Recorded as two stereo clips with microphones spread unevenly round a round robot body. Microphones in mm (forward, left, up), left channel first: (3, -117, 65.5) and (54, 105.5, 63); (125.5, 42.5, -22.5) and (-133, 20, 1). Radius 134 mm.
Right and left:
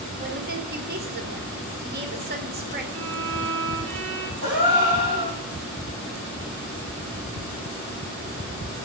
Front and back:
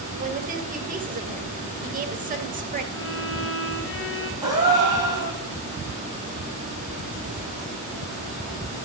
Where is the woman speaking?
125° left, 2 m.